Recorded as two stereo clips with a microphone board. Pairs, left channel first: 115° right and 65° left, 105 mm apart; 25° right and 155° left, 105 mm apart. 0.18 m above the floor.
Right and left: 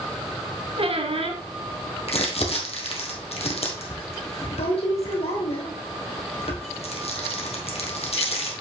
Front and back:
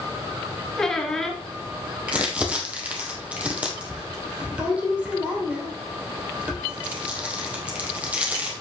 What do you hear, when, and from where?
0.8 s a squeak: 65° left, 1.4 m
2.1 s crumpling: 125° right, 2 m